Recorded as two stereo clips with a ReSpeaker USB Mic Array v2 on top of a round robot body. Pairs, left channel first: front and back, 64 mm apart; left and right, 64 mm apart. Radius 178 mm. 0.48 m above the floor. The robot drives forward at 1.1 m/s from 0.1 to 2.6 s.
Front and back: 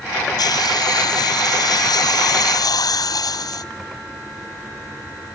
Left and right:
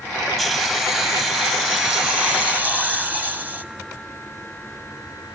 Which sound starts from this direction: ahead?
A hiss, at 0.4 s.